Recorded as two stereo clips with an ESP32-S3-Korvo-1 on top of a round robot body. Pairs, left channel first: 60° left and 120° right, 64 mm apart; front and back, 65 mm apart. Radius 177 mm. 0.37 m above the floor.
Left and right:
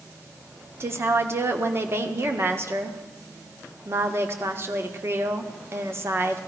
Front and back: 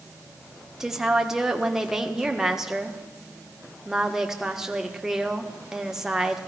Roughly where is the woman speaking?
Right.